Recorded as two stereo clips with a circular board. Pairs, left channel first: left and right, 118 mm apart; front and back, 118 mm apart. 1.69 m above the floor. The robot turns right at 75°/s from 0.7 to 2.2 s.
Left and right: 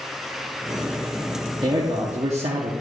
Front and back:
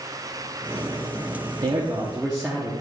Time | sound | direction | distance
1.6 | a man speaking | 145° right | 0.9 m